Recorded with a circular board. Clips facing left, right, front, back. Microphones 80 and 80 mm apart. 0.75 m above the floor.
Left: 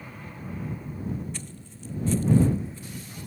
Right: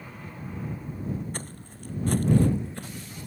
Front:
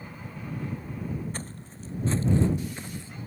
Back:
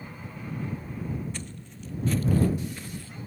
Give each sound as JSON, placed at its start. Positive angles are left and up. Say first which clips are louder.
{"t": 1.3, "sound": "footsteps", "louder": "right 2 dB, front 1 dB", "azimuth_deg": -50}